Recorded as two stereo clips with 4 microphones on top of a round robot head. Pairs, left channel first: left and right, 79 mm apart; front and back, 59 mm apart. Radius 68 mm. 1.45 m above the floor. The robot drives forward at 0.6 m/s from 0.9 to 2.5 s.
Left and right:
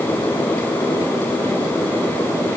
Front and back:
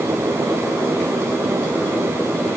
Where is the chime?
No chime in this recording.